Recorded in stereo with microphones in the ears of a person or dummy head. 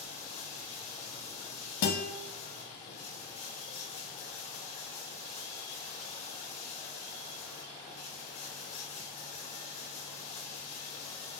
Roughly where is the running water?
Left.